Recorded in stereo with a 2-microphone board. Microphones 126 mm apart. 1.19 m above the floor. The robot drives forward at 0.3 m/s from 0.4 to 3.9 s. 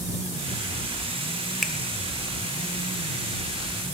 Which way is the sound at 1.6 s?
Centre (ahead or behind).